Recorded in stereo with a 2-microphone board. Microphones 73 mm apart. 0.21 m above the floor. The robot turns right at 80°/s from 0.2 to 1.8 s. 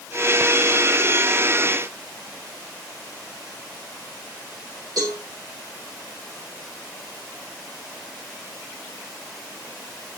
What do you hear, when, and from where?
5.0 s a cowbell: 60° right (ahead or behind), 8.5 m